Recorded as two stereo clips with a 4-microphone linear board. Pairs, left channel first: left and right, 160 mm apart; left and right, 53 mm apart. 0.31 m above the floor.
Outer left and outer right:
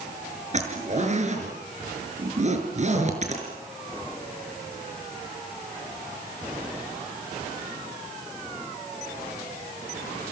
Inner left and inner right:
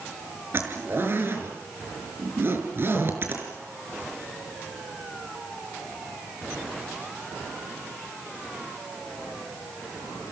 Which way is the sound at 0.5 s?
45° right (ahead or behind).